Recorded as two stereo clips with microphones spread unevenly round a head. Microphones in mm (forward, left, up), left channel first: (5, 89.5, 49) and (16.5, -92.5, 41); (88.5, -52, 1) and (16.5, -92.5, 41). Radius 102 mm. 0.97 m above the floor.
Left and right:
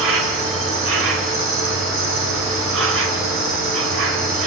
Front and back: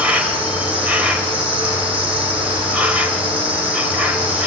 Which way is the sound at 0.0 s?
80° right.